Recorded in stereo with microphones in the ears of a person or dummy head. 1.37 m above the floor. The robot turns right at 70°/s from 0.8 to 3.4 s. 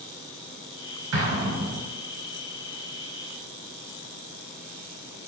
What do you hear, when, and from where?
1.1 s an explosion: 70° right (ahead or behind), 0.7 m; by 1.8 s 50° right (ahead or behind), 0.7 m